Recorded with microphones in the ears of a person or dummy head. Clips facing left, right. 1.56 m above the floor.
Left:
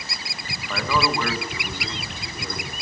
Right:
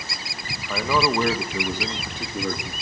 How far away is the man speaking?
About 1.7 m.